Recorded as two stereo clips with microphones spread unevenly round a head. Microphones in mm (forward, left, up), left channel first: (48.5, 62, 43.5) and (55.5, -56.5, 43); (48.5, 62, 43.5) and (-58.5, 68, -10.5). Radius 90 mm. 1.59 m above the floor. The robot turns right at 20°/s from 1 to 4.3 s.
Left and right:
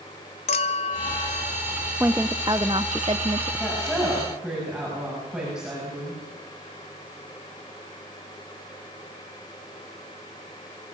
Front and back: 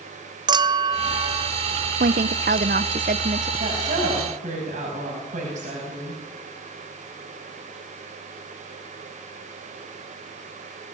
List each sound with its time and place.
0.5 s a clink: 110° left, 0.6 m; by 1.5 s 120° left, 0.6 m
2.0 s a woman speaking: 160° right, 0.7 m; by 3.5 s 130° right, 0.7 m
3.6 s a woman speaking: 175° left, 9 m; by 6.2 s 170° right, 9 m